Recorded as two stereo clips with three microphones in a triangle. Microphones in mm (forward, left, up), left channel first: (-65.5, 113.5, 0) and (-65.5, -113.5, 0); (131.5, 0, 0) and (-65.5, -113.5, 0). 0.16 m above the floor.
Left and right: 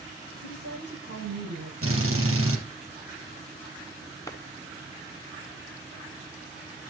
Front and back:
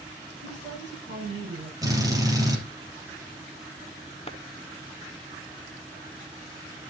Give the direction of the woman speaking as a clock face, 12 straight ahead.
3 o'clock.